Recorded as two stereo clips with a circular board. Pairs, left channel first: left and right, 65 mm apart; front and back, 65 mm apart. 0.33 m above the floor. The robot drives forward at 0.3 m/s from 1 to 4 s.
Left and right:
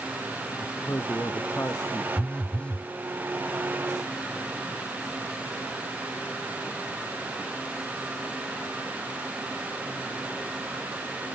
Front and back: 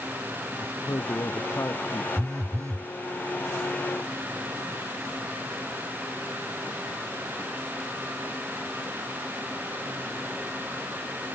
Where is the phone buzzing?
160° left.